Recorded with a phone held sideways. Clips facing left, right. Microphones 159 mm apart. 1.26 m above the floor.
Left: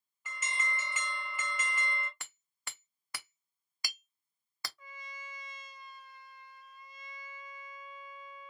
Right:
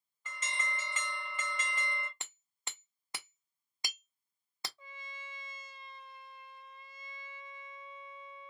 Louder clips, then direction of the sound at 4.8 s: Left 1 dB; 30° right (ahead or behind).